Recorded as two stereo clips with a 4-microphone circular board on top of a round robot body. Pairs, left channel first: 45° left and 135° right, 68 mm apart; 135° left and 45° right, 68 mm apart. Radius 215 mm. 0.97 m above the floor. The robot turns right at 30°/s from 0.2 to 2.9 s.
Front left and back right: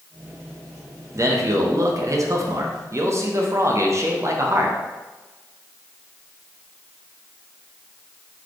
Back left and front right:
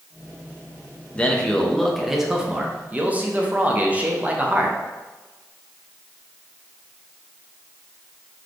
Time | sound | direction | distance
1.1 | a man speaking | 160° right | 1.1 m